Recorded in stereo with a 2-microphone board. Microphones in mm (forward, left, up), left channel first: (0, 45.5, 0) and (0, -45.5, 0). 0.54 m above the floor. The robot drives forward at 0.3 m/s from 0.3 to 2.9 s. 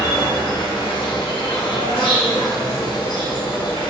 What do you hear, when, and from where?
0.0 s an insect: 65° left (ahead or behind), 1.1 m